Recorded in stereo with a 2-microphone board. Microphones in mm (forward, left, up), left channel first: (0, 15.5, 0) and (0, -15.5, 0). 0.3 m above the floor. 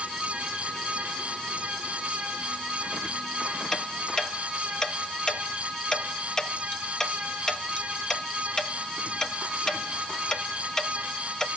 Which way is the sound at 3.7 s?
20° left (ahead or behind).